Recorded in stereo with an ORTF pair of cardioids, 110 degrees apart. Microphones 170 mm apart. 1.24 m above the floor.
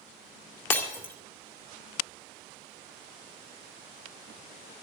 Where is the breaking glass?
10° left, 2 m.